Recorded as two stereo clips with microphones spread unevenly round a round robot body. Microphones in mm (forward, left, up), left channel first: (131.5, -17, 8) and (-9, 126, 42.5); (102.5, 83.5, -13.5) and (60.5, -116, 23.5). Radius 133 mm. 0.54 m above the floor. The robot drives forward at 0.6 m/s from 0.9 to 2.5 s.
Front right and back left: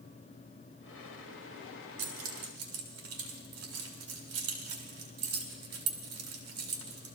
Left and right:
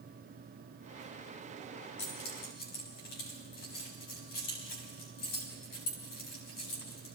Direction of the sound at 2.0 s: 130° left.